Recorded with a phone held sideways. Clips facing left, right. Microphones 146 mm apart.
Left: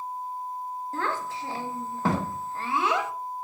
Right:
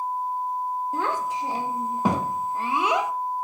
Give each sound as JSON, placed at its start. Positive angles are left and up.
{"t": 0.9, "sound": "a child speaking", "side_deg": -15, "distance_m": 0.5}